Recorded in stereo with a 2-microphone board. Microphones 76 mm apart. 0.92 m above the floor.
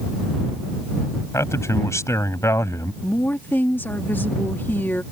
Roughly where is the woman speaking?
Left.